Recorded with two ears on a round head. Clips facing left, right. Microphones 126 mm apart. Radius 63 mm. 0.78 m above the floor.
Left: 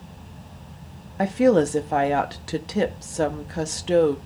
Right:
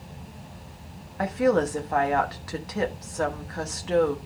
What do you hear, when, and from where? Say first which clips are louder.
1.2 s a woman speaking: left 4 dB; 30° left (ahead or behind), 1.3 m